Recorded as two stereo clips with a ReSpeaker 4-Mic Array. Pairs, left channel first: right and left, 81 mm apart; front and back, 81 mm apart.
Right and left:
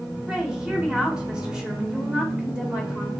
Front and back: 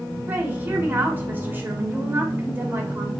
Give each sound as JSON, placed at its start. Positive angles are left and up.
{"t": 0.3, "sound": "a woman speaking", "azimuth_deg": 155, "distance_m": 1.1}